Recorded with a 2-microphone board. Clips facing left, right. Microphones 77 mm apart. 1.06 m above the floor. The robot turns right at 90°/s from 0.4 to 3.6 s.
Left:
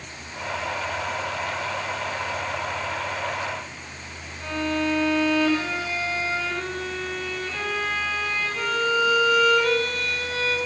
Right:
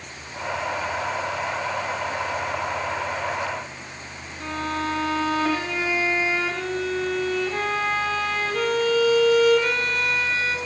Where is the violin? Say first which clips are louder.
Left 2 dB; 65° right (ahead or behind), 8 m.